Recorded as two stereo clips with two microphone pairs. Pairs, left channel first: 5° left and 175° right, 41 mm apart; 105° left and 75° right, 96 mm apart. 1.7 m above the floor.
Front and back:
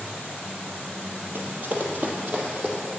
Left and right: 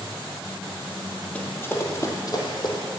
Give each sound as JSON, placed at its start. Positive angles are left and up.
{"t": 1.4, "sound": "running footsteps", "azimuth_deg": 180, "distance_m": 2.5}